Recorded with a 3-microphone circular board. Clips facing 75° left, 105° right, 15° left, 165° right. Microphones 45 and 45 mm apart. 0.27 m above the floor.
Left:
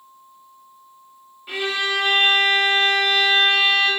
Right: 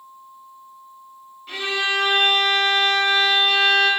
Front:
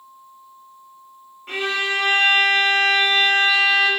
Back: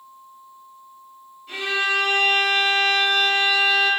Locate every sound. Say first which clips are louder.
1.5 s a violin: even, even; straight ahead, 0.6 m